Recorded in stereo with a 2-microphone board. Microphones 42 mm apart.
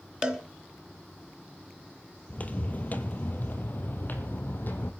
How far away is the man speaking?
No man speaking in this recording.